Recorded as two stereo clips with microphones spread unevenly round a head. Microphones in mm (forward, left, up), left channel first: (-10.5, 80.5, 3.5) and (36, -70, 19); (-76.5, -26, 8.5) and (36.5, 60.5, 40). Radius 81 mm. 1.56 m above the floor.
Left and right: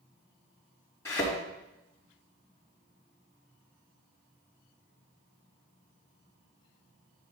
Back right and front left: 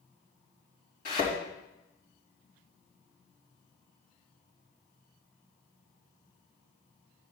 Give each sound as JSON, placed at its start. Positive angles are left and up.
{"t": 1.1, "sound": "a thud", "azimuth_deg": -175, "distance_m": 3.5}